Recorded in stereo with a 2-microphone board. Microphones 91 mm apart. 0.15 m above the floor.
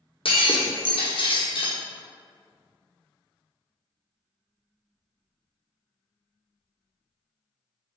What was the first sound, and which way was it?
Breaking glass, 70° left (ahead or behind).